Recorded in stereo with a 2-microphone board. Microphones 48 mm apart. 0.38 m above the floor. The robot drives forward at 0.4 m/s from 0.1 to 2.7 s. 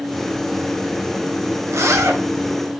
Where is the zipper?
75° right (ahead or behind), 0.9 m; by 2.2 s 65° right (ahead or behind), 1.0 m.